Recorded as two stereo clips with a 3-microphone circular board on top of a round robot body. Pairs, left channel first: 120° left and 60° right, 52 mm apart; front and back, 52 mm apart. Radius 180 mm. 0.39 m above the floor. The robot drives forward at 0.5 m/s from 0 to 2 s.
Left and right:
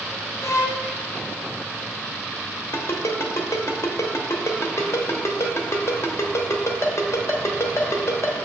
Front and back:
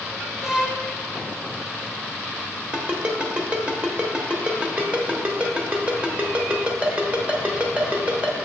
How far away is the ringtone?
About 1.1 m.